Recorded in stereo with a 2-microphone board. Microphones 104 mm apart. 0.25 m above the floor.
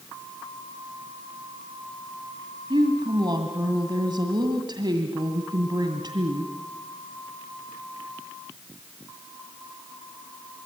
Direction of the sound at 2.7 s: 45° right (ahead or behind).